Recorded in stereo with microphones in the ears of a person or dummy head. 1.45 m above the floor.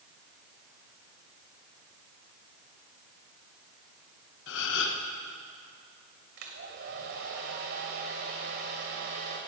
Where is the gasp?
70° left (ahead or behind), 1.5 m.